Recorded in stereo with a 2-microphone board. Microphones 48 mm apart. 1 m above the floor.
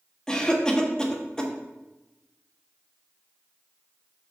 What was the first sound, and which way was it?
A cough, 15° left (ahead or behind).